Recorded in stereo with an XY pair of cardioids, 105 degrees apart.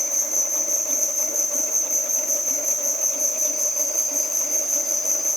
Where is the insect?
20° right, 6 m.